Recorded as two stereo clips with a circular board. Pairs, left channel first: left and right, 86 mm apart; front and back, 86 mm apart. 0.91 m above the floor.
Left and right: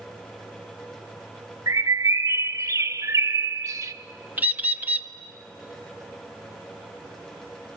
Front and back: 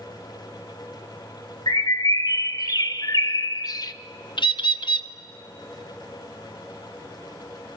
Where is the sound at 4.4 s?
20° right, 0.7 m.